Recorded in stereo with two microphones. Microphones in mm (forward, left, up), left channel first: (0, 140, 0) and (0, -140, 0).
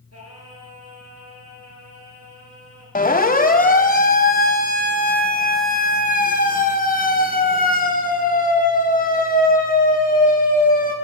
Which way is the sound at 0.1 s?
60° right (ahead or behind).